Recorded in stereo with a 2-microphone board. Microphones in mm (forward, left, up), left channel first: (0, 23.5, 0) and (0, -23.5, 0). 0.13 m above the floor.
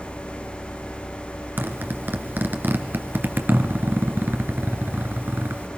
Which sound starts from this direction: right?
A zipper, at 1.6 s.